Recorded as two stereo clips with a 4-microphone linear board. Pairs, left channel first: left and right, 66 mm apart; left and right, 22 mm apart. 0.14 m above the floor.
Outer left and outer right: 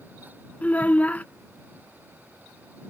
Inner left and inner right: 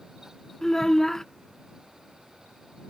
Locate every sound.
0.6 s a child speaking: 25° left (ahead or behind)